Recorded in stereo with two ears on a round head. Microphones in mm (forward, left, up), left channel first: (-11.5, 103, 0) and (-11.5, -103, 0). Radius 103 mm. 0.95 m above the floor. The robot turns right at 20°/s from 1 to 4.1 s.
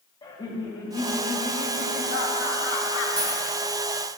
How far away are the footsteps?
I don't hear footsteps.